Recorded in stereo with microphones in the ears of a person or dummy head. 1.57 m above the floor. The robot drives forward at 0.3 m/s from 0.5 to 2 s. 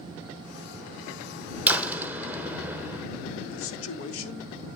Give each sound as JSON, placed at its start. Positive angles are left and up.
{"t": 1.7, "sound": "a door slam", "side_deg": -5, "distance_m": 0.8}
{"t": 3.5, "sound": "a man speaking", "side_deg": 80, "distance_m": 1.5}